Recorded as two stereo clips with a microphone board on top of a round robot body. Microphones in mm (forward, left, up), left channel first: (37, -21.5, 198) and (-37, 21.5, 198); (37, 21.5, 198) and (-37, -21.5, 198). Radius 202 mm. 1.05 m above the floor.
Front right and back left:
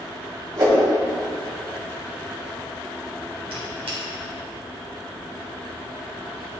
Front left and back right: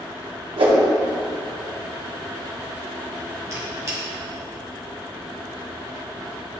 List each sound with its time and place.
0.6 s a whoosh: 160° right, 1.7 m
3.5 s a squeak: 150° left, 1.6 m